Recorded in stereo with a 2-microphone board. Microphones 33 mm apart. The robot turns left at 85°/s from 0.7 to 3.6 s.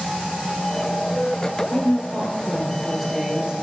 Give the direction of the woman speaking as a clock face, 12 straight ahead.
9 o'clock.